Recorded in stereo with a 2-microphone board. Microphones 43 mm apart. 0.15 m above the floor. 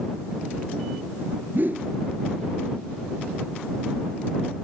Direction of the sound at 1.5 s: 50° right (ahead or behind).